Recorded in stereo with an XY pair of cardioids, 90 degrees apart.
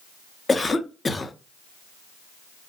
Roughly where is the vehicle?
No vehicle in this recording.